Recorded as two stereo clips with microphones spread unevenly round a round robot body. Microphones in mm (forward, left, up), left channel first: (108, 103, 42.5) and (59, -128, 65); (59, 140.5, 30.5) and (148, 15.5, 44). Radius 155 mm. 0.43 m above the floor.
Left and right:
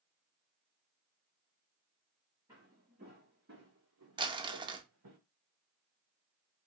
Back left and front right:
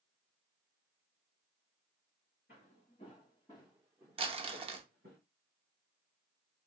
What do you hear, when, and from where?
2.5 s footsteps: 175° right, 1.8 m; by 5.2 s 110° right, 1.7 m
4.2 s crumpling: 35° right, 0.6 m